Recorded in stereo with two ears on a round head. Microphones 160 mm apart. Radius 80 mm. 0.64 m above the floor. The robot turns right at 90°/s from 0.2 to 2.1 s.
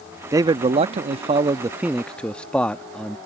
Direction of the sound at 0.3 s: 150° right.